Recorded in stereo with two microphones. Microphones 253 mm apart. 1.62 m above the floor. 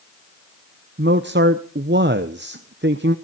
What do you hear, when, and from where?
1.0 s a man speaking: 45° right (ahead or behind), 0.8 m